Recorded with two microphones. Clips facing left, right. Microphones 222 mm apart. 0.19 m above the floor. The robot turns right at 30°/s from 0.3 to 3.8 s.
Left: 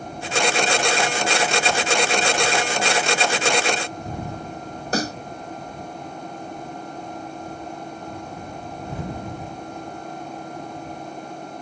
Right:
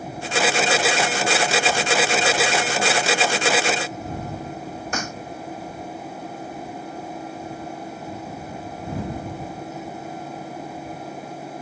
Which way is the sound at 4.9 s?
40° left (ahead or behind).